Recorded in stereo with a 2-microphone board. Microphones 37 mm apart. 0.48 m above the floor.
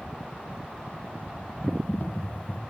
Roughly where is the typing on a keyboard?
Left.